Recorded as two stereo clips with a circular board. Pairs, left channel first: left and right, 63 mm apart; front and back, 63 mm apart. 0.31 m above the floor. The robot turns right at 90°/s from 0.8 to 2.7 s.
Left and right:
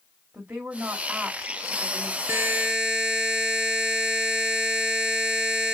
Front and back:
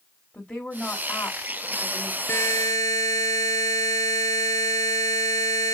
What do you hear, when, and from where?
0.3 s a woman speaking: 45° right, 1.0 m; by 2.2 s 80° left, 1.0 m
2.3 s a buzzer: 45° right, 0.8 m; by 5.7 s 10° right, 0.8 m